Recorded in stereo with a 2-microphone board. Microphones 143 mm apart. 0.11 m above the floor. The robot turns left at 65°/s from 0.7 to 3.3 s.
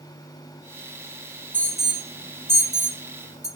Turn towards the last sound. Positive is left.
turn(degrees=-50)  # may be behind; listen again after turning